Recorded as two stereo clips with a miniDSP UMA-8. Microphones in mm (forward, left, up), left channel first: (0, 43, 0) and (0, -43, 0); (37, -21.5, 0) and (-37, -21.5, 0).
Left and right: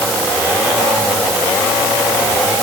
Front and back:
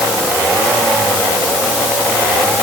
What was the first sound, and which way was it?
Only background noise.